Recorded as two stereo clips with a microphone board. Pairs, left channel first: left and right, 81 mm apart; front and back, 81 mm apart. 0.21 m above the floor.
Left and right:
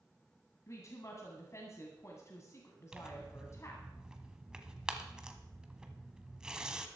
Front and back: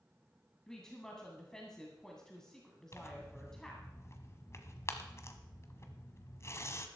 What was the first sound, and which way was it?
A woman speaking, 80° left.